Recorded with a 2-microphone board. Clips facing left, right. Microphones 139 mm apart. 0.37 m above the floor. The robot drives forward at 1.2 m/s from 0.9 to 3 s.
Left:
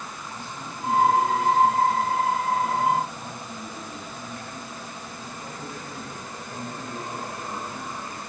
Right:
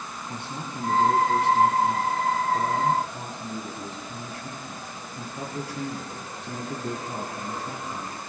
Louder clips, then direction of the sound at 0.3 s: Right 5 dB; 70° right (ahead or behind).